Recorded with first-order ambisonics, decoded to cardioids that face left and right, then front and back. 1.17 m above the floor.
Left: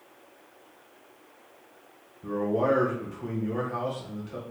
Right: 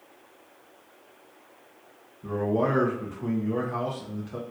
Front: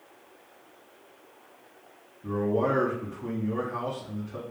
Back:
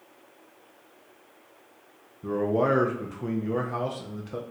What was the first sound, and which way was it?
A man speaking, 175° right.